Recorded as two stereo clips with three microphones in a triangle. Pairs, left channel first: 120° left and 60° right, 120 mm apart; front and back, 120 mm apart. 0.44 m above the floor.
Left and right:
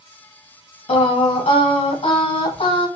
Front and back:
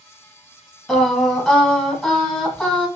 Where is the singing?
90° left, 0.8 m.